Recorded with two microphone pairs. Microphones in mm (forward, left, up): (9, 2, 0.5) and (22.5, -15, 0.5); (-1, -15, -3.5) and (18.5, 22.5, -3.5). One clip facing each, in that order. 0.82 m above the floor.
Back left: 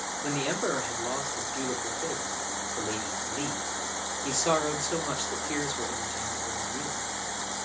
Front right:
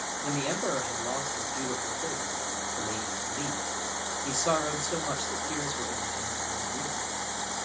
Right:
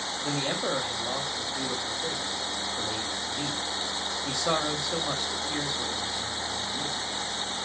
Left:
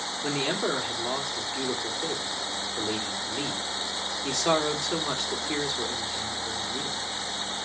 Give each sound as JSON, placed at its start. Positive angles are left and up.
{"t": 0.2, "sound": "a man speaking", "azimuth_deg": 70, "distance_m": 2.5}